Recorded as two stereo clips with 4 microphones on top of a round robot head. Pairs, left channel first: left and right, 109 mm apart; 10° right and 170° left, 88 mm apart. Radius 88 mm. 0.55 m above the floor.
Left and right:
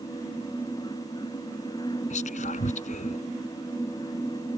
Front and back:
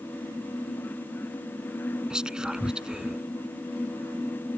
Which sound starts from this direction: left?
Whispering, at 2.1 s.